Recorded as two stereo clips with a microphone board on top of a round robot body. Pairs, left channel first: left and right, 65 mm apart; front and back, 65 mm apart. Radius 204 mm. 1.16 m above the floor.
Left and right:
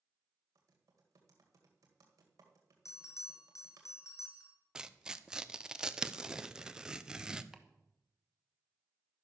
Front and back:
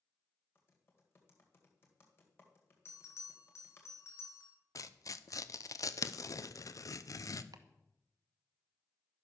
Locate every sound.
0.6 s typing on a keyboard: 55° right, 1.9 m
2.9 s a bell: 45° left, 2.5 m
4.8 s tearing paper: 15° right, 0.9 m
7.5 s chopping: 175° right, 1.1 m